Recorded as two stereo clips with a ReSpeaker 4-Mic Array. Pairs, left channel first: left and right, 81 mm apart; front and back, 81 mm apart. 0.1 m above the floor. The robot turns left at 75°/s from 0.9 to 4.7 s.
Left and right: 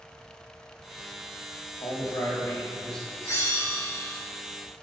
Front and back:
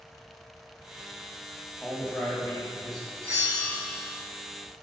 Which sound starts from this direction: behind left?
A bell, at 3.2 s.